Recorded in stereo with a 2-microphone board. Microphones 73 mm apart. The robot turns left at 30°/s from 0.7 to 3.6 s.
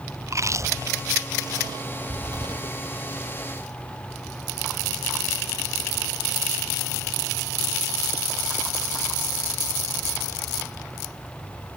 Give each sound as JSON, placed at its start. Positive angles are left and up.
{"t": 0.2, "sound": "chewing", "side_deg": -45}